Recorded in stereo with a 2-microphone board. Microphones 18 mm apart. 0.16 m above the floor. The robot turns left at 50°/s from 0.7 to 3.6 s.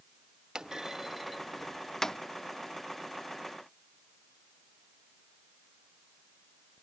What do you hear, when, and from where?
0.6 s a clunk: 45° right (ahead or behind); by 2.2 s 30° left (ahead or behind)